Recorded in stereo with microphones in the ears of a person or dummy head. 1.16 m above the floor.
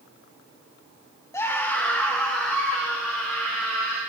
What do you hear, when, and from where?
1.3 s a scream: 15° left (ahead or behind), 1.0 m; by 4.0 s centre (ahead or behind), 5 m